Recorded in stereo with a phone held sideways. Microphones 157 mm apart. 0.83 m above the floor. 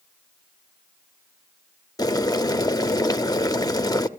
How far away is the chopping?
I don't hear chopping.